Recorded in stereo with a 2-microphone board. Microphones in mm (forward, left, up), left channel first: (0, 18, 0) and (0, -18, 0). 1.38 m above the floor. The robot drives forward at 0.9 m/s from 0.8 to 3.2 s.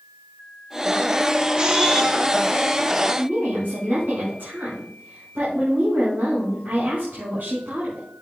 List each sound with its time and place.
1.6 s a camera shutter: 25° right (ahead or behind), 1.2 m; by 2.2 s 15° right (ahead or behind), 1.7 m
3.2 s a woman speaking: 70° right (ahead or behind), 6 m